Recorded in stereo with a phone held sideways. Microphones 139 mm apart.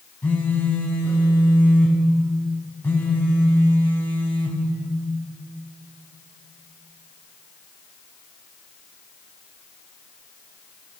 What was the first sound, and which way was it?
A phone buzzing, 10° left (ahead or behind).